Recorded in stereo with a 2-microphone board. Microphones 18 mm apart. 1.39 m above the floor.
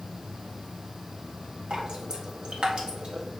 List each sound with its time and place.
1.7 s dripping: 55° right (ahead or behind), 1.7 m